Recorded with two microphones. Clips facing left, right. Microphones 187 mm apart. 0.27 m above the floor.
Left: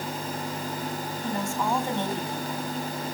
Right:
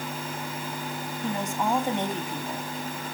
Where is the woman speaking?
20° right (ahead or behind), 1.7 m.